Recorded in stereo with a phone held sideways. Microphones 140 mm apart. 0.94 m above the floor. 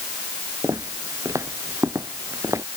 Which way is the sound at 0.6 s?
20° right (ahead or behind).